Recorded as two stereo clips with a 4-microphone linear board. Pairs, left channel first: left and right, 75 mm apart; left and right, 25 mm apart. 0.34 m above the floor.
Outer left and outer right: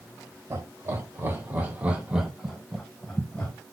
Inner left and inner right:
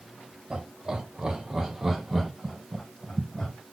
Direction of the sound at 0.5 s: 45° right (ahead or behind).